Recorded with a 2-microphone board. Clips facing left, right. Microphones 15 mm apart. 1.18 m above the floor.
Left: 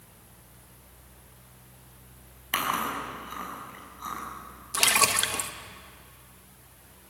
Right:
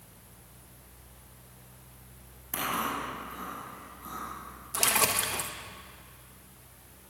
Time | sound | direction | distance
2.5 | chewing | 85° left | 6 m
4.7 | a splash | 40° left (ahead or behind) | 1.3 m